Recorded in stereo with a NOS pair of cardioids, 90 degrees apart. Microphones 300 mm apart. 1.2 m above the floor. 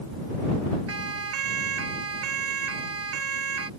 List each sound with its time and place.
0.9 s a siren: 55° right